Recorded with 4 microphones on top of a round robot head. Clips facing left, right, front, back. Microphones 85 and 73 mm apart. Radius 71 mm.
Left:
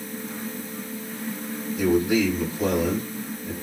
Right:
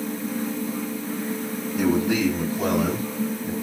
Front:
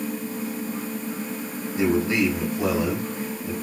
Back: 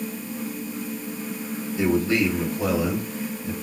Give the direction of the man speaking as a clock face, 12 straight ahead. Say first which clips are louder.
Left 1 dB, even; 2 o'clock.